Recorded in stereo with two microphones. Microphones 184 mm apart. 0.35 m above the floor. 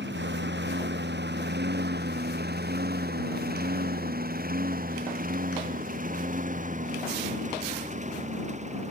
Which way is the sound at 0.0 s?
75° right (ahead or behind).